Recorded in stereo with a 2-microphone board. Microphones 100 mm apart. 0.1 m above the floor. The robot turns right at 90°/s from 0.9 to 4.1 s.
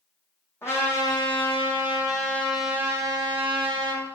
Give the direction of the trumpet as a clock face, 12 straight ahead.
11 o'clock.